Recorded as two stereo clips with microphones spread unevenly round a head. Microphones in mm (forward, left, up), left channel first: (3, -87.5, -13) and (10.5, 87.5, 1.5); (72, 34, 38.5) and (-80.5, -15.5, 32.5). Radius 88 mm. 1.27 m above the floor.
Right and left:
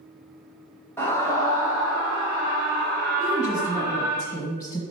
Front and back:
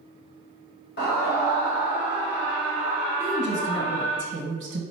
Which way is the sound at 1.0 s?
15° right.